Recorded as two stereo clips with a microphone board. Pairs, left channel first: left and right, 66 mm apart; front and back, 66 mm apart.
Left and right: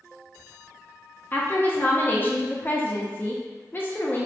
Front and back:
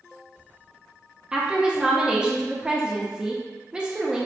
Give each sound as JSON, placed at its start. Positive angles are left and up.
{"t": 1.3, "sound": "a woman speaking", "azimuth_deg": 115, "distance_m": 0.5}